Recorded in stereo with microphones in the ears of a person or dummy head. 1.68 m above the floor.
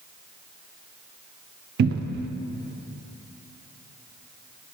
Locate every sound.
1.8 s a cupboard door: 60° right (ahead or behind), 0.5 m